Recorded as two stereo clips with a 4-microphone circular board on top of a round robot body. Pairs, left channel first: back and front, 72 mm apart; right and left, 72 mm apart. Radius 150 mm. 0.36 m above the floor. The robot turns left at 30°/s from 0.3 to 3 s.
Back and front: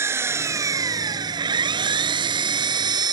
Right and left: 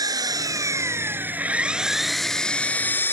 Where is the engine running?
55° left; by 3.1 s 25° right.